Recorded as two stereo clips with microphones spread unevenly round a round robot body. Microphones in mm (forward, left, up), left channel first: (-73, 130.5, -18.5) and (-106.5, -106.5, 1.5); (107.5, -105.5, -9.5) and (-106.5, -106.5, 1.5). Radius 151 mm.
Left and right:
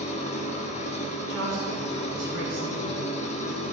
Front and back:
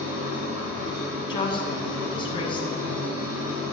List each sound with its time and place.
0.0 s an engine running: 145° left, 2.5 m
1.3 s a woman speaking: 65° right, 3 m